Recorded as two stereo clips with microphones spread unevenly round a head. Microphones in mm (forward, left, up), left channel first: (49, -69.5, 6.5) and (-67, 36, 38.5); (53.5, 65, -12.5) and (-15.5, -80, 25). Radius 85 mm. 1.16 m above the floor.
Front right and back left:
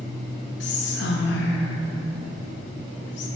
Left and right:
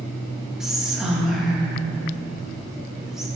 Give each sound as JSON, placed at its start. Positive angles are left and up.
{"t": 0.6, "sound": "whispering", "azimuth_deg": -30, "distance_m": 1.1}